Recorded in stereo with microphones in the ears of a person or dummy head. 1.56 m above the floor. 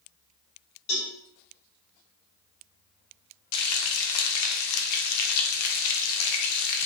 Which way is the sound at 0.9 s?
75° left (ahead or behind).